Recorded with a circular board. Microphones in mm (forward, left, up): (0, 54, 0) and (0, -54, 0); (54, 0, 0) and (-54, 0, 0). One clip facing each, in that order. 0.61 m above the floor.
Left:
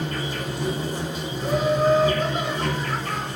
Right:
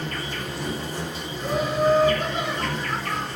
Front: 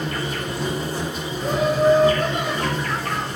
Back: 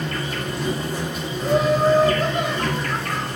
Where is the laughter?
10° right, 1.8 m.